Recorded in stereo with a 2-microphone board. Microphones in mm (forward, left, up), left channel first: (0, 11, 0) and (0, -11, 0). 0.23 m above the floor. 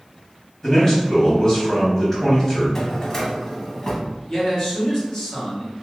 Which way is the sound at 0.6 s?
30° left (ahead or behind).